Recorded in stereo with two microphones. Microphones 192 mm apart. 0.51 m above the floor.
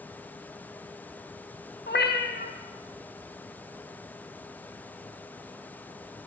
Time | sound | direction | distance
1.9 | a cat meowing | 70° left (ahead or behind) | 0.5 m